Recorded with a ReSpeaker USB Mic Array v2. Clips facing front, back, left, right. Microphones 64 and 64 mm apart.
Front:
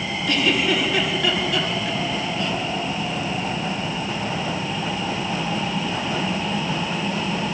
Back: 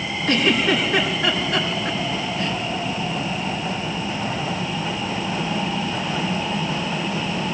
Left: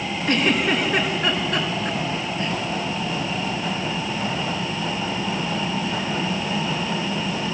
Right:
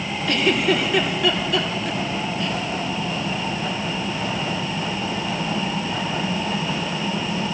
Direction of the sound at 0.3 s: 130° left.